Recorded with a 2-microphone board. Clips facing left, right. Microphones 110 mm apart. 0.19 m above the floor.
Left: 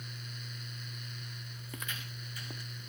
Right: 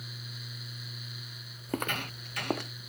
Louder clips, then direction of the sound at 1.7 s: Right 13 dB; 55° right (ahead or behind).